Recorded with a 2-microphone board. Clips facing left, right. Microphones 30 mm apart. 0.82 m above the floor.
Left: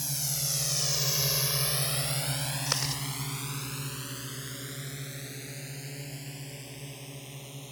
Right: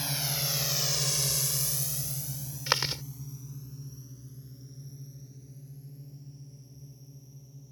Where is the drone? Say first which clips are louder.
Right 2 dB; 30° right (ahead or behind); by 7.7 s 80° left.